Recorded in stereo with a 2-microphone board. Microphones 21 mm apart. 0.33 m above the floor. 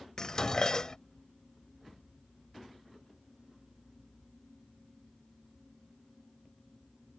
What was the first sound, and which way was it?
Dishes clattering, 30° left (ahead or behind).